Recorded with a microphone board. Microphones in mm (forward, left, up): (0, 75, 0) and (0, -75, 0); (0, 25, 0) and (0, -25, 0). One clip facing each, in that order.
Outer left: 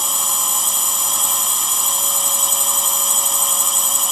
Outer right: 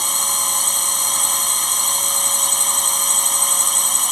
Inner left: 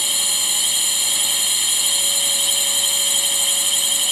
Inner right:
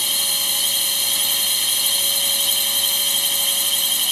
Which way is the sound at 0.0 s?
5° left (ahead or behind).